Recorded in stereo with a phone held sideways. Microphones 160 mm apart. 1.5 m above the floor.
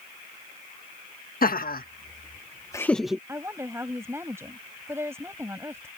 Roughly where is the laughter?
Left.